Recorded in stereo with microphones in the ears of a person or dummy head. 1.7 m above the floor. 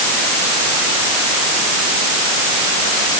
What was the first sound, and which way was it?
Only background noise.